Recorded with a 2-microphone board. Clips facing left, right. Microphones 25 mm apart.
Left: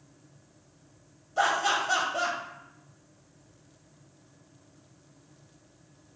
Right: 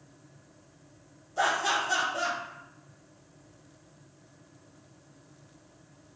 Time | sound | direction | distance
1.4 | laughter | 30° left (ahead or behind) | 1.0 m